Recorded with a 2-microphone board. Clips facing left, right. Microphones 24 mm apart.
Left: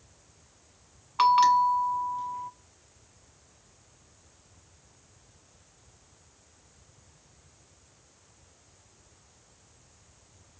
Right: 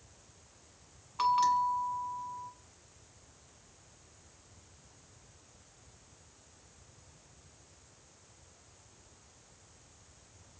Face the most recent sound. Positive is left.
turn(degrees=35)  # may be behind; listen again after turning